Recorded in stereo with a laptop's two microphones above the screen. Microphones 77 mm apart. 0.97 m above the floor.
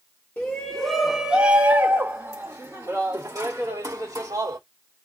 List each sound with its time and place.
0.4 s a shout: 25° left (ahead or behind), 0.9 m; by 4.6 s 65° right (ahead or behind), 2 m